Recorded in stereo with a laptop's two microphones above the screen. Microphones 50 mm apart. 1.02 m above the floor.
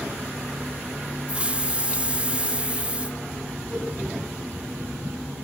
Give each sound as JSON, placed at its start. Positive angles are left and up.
{"t": 1.3, "sound": "a hiss", "side_deg": -25, "distance_m": 0.5}
{"t": 3.7, "sound": "a whoosh", "side_deg": -10, "distance_m": 4.5}